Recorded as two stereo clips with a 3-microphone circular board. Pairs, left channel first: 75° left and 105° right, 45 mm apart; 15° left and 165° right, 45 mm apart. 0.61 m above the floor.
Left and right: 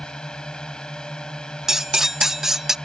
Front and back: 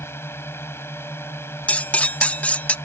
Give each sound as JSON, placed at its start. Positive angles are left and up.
{"t": 0.0, "sound": "a drone", "azimuth_deg": 5}
{"t": 1.7, "sound": "cutlery clinking", "azimuth_deg": -25}